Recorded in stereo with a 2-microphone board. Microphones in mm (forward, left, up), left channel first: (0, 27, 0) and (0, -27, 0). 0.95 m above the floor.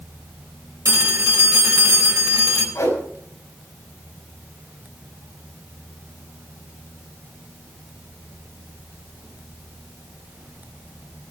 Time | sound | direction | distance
0.8 | a phone ringing | 80° right | 3 m
2.8 | a whoosh | 75° left (ahead or behind) | 5 m